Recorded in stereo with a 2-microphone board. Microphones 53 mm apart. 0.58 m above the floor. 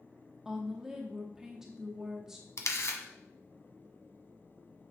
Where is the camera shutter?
65° left (ahead or behind), 1.1 m.